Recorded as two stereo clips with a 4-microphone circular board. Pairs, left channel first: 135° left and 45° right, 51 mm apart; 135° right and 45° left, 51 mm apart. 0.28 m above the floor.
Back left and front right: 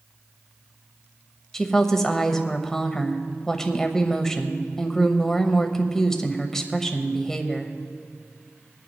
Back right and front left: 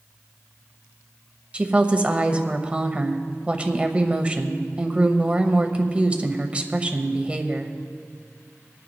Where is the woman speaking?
65° left, 0.9 m.